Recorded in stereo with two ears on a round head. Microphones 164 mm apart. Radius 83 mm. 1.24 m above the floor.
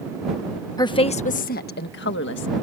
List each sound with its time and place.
0.8 s a woman speaking: 20° left (ahead or behind); by 2.5 s 75° left (ahead or behind)